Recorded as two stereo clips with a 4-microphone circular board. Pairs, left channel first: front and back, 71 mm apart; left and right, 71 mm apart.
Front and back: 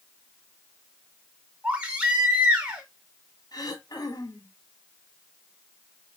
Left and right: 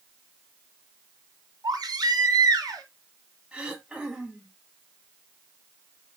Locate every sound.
1.6 s a baby crying: 110° right, 3.5 m
3.5 s throat clearing: 15° right, 2 m